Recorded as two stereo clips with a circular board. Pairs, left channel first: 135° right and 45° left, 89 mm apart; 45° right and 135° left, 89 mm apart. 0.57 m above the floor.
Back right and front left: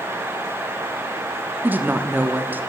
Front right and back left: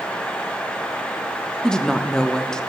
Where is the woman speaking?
25° left, 0.6 m.